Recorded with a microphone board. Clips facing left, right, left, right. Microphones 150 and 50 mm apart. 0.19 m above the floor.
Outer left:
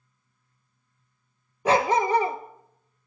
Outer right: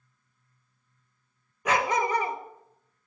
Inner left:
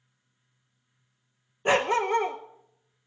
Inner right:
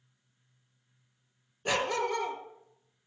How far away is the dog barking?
About 1.2 m.